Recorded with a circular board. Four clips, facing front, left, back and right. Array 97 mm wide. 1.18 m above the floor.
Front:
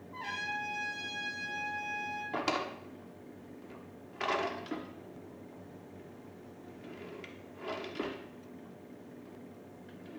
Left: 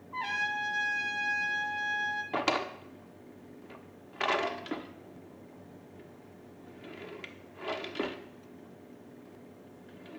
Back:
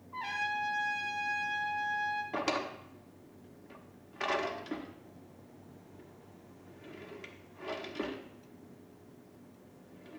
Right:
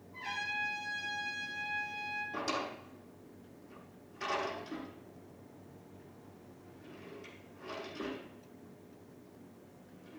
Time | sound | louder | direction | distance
0.1 | a trumpet | left 7 dB, back 3 dB | 100° left | 3 m
2.3 | a drawer | left 6 dB, even | 85° left | 0.9 m